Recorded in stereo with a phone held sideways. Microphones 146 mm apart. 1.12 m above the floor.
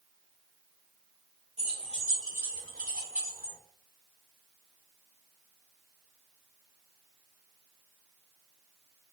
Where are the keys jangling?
45° right (ahead or behind), 1.6 m; by 3.6 s 85° right, 1.0 m.